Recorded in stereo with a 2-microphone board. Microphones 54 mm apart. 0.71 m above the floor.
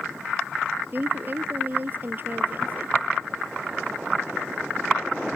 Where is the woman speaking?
40° right (ahead or behind).